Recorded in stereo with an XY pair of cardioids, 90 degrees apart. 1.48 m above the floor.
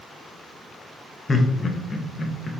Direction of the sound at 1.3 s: 25° left.